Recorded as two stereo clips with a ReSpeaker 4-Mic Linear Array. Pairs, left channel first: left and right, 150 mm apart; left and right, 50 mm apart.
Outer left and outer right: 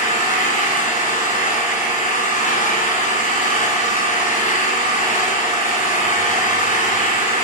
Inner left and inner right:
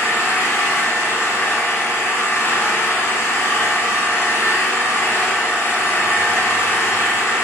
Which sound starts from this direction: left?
An engine running, at 0.0 s.